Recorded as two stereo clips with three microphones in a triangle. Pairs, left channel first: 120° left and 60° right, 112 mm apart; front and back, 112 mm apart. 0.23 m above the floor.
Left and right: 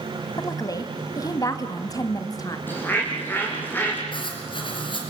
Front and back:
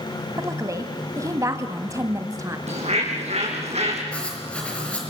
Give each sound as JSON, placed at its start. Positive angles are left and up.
{"t": 0.4, "sound": "a woman speaking", "azimuth_deg": 145, "distance_m": 1.4}
{"t": 2.7, "sound": "a bird", "azimuth_deg": -170, "distance_m": 6.0}
{"t": 4.1, "sound": "writing", "azimuth_deg": 80, "distance_m": 5.0}